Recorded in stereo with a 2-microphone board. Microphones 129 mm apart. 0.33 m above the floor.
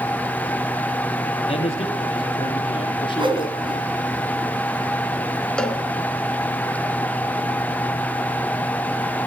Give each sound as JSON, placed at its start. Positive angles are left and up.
{"t": 1.5, "sound": "a man speaking", "side_deg": 45, "distance_m": 8.0}
{"t": 3.2, "sound": "a whoosh", "side_deg": -40, "distance_m": 3.5}
{"t": 5.6, "sound": "a cowbell", "side_deg": 5, "distance_m": 3.5}